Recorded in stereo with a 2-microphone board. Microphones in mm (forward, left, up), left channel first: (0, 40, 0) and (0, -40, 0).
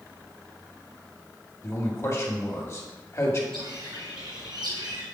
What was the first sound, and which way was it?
A man speaking, 40° left (ahead or behind).